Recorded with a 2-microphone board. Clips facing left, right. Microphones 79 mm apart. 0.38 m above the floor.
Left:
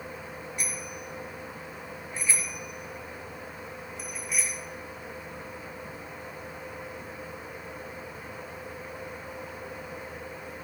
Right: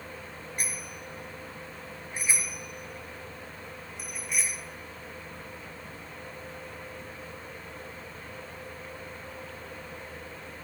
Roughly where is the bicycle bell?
Right.